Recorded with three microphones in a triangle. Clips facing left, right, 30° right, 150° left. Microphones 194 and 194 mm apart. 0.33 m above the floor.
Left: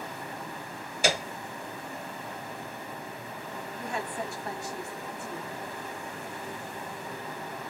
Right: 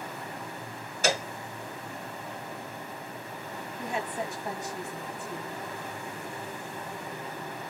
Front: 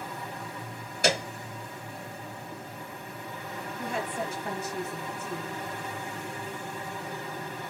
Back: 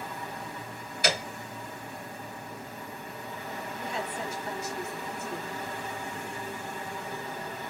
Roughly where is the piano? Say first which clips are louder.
Even, front 3 dB; ahead.